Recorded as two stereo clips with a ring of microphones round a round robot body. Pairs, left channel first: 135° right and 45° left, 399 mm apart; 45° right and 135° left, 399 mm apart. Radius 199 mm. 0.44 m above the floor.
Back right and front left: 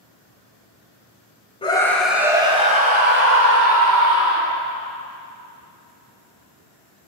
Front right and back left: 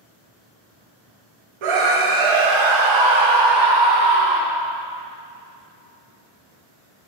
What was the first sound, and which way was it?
A scream, 150° left.